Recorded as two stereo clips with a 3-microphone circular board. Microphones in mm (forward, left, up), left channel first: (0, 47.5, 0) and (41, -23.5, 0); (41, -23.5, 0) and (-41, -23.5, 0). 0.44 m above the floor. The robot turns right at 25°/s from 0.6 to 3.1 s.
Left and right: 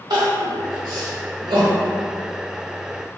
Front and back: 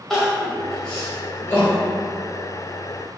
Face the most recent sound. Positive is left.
turn(degrees=-25)